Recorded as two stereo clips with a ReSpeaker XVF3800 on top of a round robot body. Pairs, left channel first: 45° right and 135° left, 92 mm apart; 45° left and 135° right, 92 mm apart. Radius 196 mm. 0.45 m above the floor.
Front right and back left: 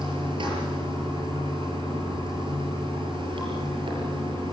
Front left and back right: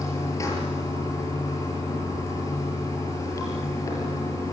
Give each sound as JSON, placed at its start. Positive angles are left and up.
{"t": 0.0, "sound": "running water", "azimuth_deg": 100, "distance_m": 6.5}